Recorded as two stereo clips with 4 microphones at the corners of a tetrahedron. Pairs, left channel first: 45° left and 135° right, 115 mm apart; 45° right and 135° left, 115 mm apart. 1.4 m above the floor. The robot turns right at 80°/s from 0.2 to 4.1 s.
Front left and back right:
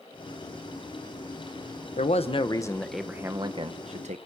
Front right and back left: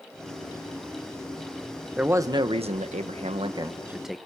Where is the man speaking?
55° left, 1.2 m; by 4.2 s 135° right, 1.2 m.